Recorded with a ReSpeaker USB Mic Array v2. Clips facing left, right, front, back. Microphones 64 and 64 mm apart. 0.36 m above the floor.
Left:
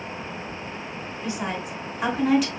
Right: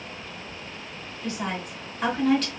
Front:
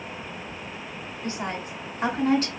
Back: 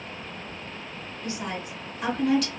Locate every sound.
1.2 s a woman speaking: 20° left, 1.1 m